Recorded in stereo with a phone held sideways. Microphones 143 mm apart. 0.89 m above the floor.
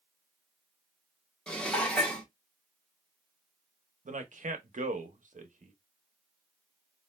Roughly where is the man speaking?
Right.